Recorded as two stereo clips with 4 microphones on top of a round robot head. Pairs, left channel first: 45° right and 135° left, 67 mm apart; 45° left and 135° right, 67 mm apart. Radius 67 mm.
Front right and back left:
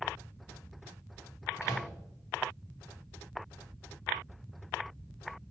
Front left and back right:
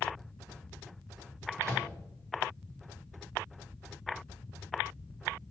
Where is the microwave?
90° right, 1.7 m.